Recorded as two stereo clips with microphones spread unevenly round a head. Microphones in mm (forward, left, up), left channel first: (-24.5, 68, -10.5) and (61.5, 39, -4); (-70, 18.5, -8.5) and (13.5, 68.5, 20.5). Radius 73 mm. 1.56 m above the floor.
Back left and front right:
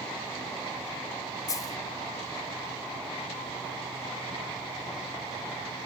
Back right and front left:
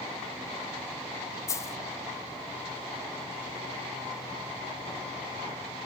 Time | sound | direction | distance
1.5 | a dropped coin | 145° left | 1.0 m